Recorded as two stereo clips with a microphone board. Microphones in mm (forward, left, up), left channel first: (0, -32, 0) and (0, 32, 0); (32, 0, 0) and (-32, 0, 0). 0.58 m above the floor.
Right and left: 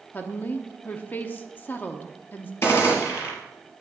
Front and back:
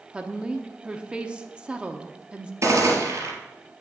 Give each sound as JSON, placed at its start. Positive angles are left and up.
{"t": 0.1, "sound": "a woman speaking", "azimuth_deg": -120, "distance_m": 0.9}
{"t": 2.6, "sound": "a gunshot", "azimuth_deg": -140, "distance_m": 3.0}